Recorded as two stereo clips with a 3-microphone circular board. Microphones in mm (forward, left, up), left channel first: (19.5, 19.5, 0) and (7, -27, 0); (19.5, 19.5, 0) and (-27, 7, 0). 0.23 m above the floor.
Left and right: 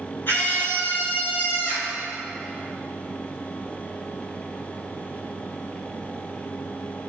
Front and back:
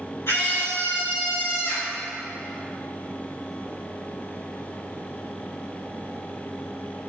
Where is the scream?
40° left, 3 m.